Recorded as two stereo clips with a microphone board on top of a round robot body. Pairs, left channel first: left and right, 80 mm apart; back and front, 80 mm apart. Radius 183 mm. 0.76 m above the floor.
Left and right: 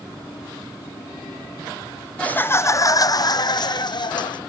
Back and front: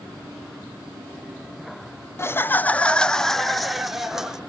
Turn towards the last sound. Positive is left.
turn(degrees=85)